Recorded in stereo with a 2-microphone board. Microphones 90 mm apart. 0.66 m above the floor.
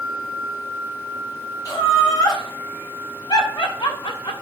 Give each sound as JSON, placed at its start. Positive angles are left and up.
{"t": 1.6, "sound": "laughter", "side_deg": 40, "distance_m": 3.5}